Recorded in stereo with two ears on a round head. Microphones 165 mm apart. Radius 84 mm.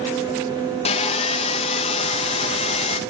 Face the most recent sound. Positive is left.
turn(degrees=30)  # may be behind; listen again after turning